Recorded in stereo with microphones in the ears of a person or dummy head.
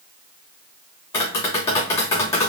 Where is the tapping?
15° left (ahead or behind), 2.5 m.